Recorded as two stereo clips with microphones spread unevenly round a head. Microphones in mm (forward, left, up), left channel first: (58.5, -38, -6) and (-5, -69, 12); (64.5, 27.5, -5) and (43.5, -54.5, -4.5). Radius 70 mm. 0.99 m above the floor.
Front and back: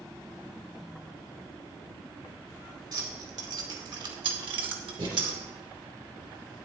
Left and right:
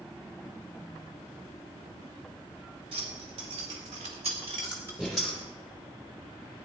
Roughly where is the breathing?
Behind.